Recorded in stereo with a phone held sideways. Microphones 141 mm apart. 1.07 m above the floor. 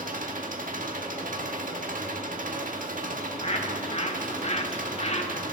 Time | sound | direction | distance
0.0 | an engine running | 65° right (ahead or behind) | 1.5 m
3.2 | a bird | 45° left (ahead or behind) | 1.4 m